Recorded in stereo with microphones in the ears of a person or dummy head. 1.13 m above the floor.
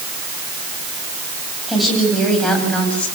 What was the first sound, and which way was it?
A woman speaking, centre (ahead or behind).